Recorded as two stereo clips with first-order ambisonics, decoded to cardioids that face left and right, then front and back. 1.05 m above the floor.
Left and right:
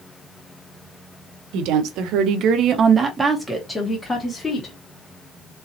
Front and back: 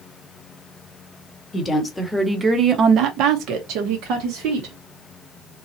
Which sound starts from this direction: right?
A woman speaking, at 1.5 s.